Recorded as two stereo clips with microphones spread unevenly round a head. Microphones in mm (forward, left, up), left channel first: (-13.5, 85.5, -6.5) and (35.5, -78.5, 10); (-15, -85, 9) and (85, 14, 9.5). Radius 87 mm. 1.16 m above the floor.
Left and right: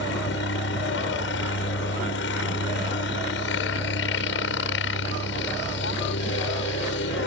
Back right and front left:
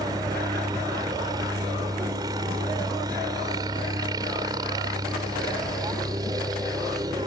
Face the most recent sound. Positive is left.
turn(degrees=115)